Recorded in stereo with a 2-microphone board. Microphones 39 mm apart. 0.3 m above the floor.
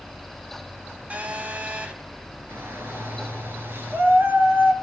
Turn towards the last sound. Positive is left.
turn(degrees=-75)  # may be behind; listen again after turning